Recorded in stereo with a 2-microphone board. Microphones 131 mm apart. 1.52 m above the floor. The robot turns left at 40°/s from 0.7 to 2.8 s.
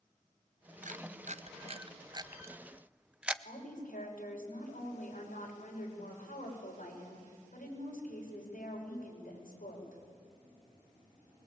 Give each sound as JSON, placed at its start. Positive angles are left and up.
{"t": 0.8, "sound": "a camera shutter", "side_deg": -65, "distance_m": 0.6}
{"t": 3.5, "sound": "a woman speaking", "side_deg": 70, "distance_m": 6.5}